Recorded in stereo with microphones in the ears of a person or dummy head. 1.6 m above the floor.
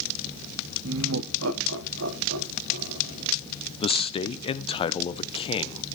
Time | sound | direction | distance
0.8 | laughter | 65° right (ahead or behind) | 0.5 m
3.8 | a man speaking | 30° left (ahead or behind) | 0.5 m